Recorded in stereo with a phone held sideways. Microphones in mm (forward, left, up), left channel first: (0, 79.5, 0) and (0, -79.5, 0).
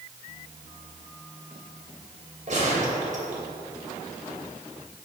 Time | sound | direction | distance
2.5 | a gunshot | 50° right (ahead or behind) | 2.5 m